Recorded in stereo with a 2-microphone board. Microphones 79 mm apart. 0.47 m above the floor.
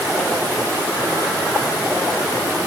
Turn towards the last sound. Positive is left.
No sound to turn to.